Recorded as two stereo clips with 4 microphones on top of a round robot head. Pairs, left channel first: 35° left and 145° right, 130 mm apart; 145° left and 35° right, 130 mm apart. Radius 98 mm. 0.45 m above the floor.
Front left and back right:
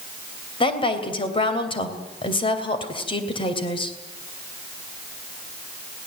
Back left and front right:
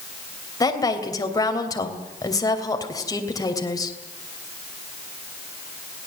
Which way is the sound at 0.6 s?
85° left.